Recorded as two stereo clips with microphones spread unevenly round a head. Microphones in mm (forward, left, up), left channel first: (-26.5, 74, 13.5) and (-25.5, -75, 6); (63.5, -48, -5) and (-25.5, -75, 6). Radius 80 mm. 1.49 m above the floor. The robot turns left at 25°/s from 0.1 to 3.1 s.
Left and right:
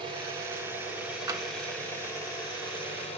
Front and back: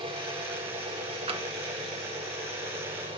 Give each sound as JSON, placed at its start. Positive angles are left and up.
{"t": 0.0, "sound": "an engine running", "azimuth_deg": -150, "distance_m": 6.5}
{"t": 1.3, "sound": "tapping", "azimuth_deg": -160, "distance_m": 1.3}